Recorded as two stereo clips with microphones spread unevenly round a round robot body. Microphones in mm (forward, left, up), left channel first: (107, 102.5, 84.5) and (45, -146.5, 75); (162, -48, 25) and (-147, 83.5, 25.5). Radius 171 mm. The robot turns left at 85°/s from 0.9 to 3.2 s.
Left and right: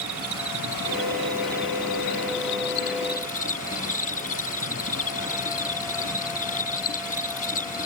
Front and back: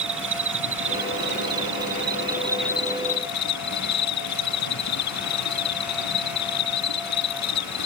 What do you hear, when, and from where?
0.0 s an insect: 145° right; by 7.9 s 15° left